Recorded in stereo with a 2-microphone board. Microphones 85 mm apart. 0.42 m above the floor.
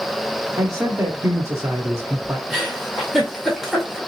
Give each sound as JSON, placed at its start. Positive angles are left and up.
{"t": 0.6, "sound": "a man speaking", "side_deg": -35, "distance_m": 0.8}
{"t": 2.5, "sound": "a giggle", "side_deg": 0, "distance_m": 1.6}